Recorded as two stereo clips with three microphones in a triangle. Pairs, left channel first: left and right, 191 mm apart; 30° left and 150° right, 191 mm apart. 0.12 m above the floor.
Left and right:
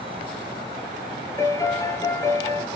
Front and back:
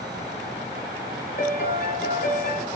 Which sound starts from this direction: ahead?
A piano, at 1.4 s.